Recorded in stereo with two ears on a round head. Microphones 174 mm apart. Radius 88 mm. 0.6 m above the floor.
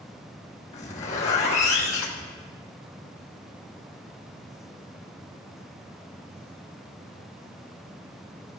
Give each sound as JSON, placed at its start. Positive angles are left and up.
{"t": 0.7, "sound": "a zipper", "side_deg": 35, "distance_m": 1.6}